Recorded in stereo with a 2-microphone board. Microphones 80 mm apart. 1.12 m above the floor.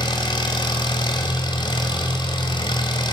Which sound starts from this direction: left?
An engine running, at 0.0 s.